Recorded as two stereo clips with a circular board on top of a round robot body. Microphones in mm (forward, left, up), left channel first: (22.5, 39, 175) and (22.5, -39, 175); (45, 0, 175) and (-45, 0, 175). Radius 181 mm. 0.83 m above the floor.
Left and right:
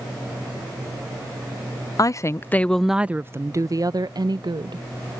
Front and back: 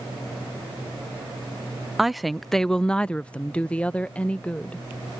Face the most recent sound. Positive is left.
turn(degrees=-80)